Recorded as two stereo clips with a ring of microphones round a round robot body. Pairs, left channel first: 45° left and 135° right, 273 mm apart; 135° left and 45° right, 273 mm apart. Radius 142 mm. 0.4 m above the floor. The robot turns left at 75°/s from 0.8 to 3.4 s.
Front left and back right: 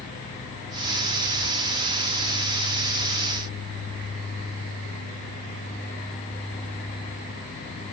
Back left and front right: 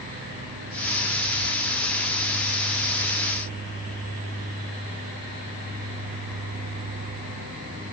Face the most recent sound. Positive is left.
No sound to turn to.